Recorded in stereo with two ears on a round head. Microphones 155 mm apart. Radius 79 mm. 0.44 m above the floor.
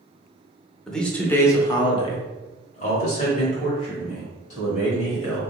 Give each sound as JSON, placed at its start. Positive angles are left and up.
{"t": 0.9, "sound": "a man speaking", "side_deg": 5, "distance_m": 1.0}